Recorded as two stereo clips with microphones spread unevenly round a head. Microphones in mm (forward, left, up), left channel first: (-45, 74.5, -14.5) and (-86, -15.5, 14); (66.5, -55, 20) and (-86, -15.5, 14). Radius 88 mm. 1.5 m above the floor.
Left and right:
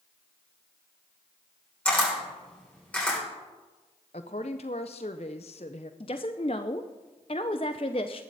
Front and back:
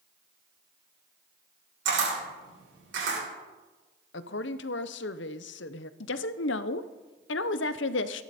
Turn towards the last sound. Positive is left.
turn(degrees=5)